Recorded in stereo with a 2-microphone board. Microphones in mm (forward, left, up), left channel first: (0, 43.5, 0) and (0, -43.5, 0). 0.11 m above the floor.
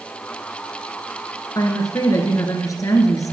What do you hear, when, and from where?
1.6 s a woman speaking: 40° left (ahead or behind), 1.6 m